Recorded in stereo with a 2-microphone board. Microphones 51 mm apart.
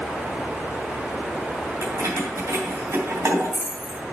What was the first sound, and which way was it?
Keys jangling, 85° right.